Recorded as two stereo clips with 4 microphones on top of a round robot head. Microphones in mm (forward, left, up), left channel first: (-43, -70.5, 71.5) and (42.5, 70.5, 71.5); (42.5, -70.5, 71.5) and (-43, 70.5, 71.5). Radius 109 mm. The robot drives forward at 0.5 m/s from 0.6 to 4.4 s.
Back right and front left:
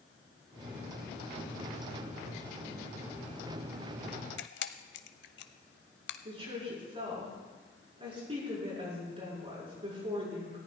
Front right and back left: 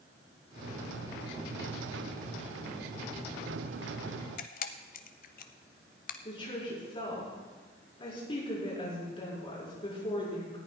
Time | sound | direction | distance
4.4 | a camera shutter | 95° right | 0.6 m
6.2 | a woman speaking | straight ahead | 6.5 m